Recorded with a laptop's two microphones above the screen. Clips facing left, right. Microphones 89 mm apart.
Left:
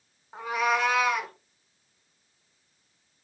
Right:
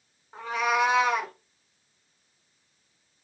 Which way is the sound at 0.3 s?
15° left (ahead or behind).